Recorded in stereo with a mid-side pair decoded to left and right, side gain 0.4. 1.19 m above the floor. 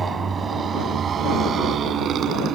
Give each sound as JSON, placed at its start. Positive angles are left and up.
{"t": 0.0, "sound": "a motorcycle", "azimuth_deg": -40}